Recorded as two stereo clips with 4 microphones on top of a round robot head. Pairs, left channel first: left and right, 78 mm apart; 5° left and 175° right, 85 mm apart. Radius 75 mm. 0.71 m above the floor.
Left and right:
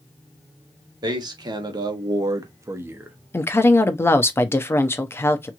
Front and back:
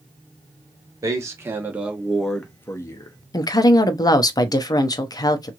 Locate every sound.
1.0 s a man speaking: 120° right, 1.2 m; by 3.2 s 25° right, 0.9 m
3.3 s a woman speaking: 35° left, 0.7 m